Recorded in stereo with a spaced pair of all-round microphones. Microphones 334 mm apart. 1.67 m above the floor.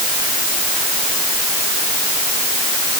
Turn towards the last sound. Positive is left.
No sound to turn to.